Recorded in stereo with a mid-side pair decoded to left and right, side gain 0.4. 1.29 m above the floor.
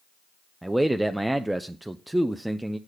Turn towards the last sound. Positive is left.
turn(degrees=-10)